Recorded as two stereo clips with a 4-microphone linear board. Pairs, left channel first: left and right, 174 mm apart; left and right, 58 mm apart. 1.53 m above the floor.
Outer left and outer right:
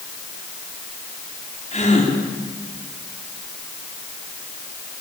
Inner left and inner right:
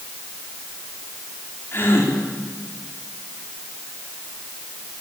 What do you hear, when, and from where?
1.7 s a gasp: 45° left (ahead or behind), 4.5 m